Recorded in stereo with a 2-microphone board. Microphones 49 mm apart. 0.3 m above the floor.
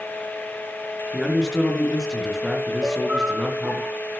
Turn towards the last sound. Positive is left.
turn(degrees=-40)  # may be behind; listen again after turning